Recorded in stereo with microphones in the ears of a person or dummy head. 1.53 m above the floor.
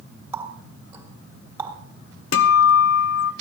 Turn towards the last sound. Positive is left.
turn(degrees=65)  # may be behind; listen again after turning